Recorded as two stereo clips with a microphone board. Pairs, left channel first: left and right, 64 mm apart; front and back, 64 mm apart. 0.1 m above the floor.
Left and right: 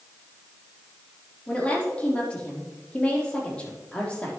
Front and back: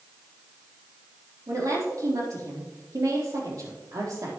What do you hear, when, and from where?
1.5 s a woman speaking: 160° left, 4 m